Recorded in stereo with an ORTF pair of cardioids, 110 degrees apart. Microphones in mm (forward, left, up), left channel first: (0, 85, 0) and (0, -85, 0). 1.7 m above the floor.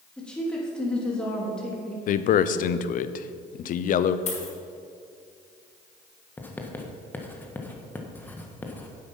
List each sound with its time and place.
0.2 s a woman speaking: 5° left, 3 m
2.1 s a man speaking: 50° left, 0.6 m
4.3 s a dropped coin: 40° left, 4.5 m
6.4 s writing: 10° left, 1.4 m